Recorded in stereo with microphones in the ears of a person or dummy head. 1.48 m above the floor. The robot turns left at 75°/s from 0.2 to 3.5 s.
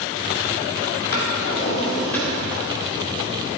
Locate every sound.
1.1 s a drawer: 70° left (ahead or behind), 2.5 m; by 3.6 s 70° right (ahead or behind), 2.5 m